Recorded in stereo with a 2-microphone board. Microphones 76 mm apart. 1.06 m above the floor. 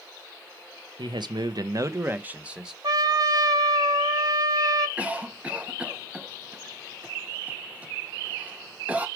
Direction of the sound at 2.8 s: 55° right (ahead or behind).